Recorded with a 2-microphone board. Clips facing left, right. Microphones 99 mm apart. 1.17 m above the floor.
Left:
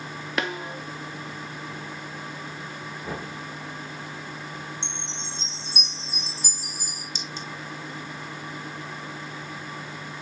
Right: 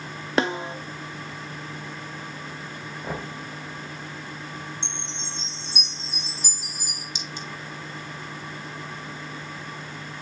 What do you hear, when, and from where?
0.4 s a snare drum: 30° right (ahead or behind), 0.6 m
3.0 s knocking: 45° right (ahead or behind), 4 m
4.8 s a chime: 15° right (ahead or behind), 3 m
7.2 s a clink: 15° right (ahead or behind), 1.4 m